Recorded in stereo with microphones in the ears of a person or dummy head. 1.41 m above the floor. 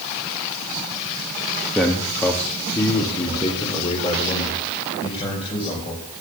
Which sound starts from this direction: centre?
A man speaking, at 1.8 s.